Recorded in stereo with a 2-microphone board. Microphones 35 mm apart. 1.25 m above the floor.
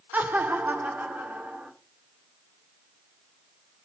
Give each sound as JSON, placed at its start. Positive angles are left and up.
{"t": 0.1, "sound": "laughter", "side_deg": -60, "distance_m": 0.9}